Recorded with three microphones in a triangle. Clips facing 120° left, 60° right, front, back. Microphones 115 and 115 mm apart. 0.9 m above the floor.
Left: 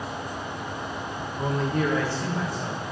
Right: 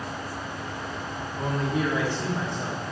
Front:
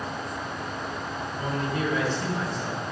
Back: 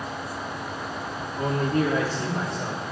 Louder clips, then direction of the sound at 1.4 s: Left 1 dB, back 6 dB; 160° right.